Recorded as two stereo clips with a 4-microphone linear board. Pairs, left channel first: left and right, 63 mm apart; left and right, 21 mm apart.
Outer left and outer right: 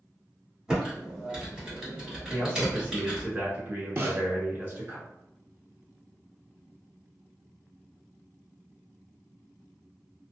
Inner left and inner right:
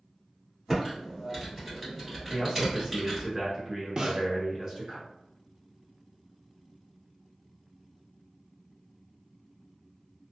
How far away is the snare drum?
About 0.6 m.